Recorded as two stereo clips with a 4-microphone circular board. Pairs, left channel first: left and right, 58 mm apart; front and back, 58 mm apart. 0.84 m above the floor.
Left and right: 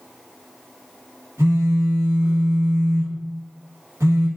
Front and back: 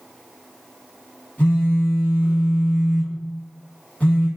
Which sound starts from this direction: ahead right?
A phone buzzing, at 1.4 s.